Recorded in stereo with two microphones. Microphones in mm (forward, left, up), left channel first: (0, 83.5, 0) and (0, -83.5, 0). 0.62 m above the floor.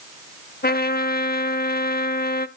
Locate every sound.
0.6 s a trumpet: 65° left (ahead or behind), 0.6 m